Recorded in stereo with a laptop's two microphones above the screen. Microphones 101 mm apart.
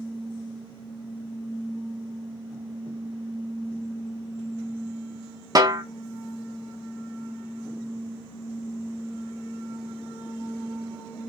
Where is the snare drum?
40° right (ahead or behind), 0.5 m.